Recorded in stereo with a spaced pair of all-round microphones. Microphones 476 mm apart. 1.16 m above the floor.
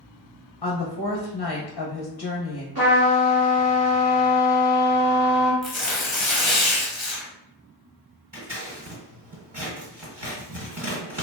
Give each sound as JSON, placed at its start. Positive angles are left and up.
{"t": 0.6, "sound": "a woman speaking", "side_deg": 55, "distance_m": 0.6}
{"t": 2.8, "sound": "a trumpet", "side_deg": -50, "distance_m": 0.9}
{"t": 5.6, "sound": "tearing paper", "side_deg": 70, "distance_m": 0.9}
{"t": 8.3, "sound": "scissors", "side_deg": -55, "distance_m": 1.5}